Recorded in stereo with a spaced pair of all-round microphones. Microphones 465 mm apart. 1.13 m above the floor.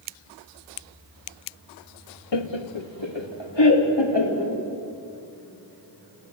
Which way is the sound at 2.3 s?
60° left (ahead or behind).